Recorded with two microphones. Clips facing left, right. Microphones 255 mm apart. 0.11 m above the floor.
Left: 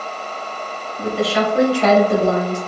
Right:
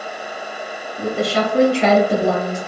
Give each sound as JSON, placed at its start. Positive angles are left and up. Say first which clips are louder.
{"t": 1.0, "sound": "a woman speaking", "louder": "left 1 dB", "side_deg": -55, "distance_m": 1.8}